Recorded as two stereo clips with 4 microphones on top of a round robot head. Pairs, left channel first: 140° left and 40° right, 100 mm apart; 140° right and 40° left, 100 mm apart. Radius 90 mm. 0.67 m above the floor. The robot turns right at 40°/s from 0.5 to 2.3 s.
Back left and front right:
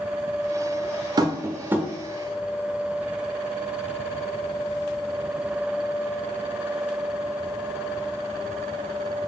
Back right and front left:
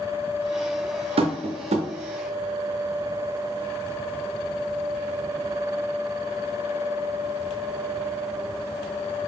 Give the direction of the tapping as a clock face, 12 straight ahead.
12 o'clock.